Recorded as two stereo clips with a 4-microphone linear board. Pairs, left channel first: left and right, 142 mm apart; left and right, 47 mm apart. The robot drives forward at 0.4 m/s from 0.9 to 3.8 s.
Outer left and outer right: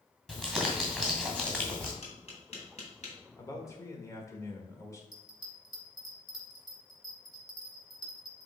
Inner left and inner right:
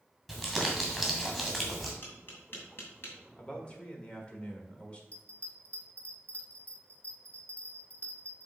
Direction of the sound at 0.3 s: 5° left (ahead or behind).